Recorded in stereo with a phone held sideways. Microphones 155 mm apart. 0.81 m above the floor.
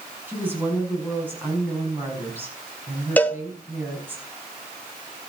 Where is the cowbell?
10° left (ahead or behind), 1.2 m.